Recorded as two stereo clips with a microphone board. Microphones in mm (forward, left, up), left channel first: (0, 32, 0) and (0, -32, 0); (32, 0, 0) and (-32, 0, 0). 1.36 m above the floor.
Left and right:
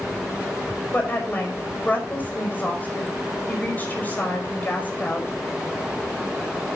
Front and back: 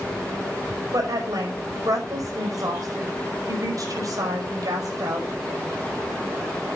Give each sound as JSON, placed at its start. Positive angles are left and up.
{"t": 0.9, "sound": "a woman speaking", "azimuth_deg": 150, "distance_m": 5.0}